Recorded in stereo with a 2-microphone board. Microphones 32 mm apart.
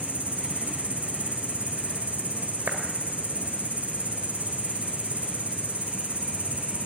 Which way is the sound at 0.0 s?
45° right (ahead or behind).